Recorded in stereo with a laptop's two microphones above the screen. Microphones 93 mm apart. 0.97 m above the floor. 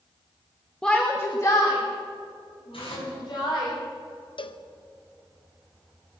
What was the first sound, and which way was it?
A shout, 5° left (ahead or behind).